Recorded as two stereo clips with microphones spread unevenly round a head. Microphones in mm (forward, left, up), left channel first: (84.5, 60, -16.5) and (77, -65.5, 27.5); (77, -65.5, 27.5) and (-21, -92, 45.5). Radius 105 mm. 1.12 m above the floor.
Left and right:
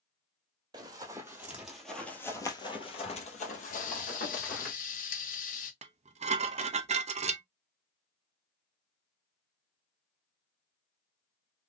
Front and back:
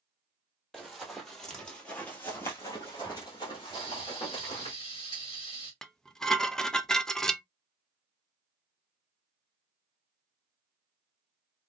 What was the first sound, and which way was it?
Running footsteps, 85° right.